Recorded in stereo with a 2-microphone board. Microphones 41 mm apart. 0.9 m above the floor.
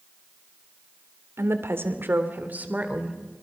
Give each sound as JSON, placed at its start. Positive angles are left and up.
{"t": 1.4, "sound": "a woman speaking", "side_deg": -75, "distance_m": 3.0}